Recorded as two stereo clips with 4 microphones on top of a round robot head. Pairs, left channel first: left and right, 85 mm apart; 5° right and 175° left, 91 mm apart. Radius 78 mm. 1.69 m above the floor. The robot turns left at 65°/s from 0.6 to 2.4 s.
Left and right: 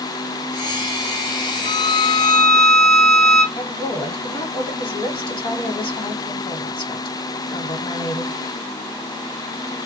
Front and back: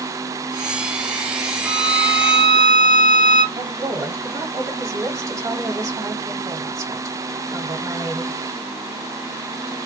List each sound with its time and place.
1.6 s a violin: 70° left, 1.9 m; by 3.4 s 20° left, 1.9 m
3.5 s a woman speaking: 120° left, 1.2 m